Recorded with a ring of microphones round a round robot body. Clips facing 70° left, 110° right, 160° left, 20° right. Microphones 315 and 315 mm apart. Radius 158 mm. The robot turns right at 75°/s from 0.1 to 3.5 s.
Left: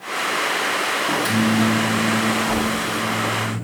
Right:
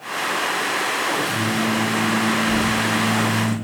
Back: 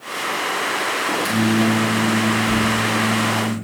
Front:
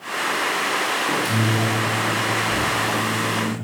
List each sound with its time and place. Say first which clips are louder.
1.1 s a microwave: left 6 dB, back 5 dB; 60° left, 5 m; by 3.5 s 120° right, 5 m